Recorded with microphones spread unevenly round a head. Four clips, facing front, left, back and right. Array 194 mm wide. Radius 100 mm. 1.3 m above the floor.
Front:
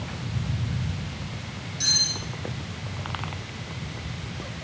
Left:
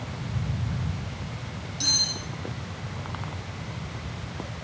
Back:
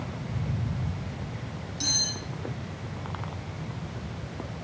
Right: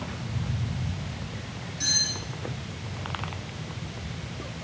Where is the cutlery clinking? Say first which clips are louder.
Even, front 1 dB; 155° left, 3 m.